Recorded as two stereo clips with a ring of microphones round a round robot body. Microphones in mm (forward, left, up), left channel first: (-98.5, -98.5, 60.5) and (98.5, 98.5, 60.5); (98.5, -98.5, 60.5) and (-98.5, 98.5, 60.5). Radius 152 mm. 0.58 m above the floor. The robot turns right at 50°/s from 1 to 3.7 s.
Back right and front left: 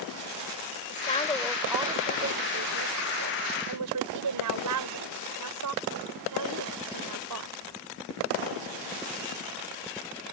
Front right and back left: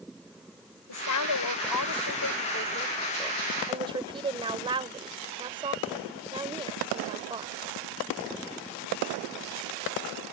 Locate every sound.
0.9 s a woman speaking: 75° right; by 7.5 s 60° left